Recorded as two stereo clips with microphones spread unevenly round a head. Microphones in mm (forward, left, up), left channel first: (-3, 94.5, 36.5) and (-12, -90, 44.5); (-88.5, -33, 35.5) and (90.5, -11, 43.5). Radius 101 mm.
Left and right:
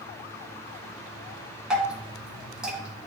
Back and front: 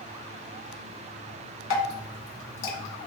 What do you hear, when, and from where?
1.7 s dripping: 175° right, 1.7 m